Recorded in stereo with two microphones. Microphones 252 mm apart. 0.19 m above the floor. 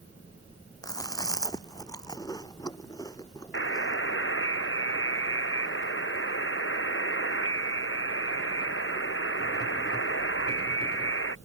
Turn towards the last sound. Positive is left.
turn(degrees=55)  # may be behind; listen again after turning